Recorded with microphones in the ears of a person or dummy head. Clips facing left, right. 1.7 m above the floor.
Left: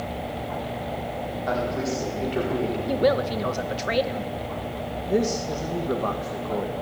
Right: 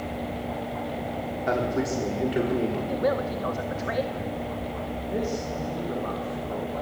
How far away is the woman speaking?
About 1.7 m.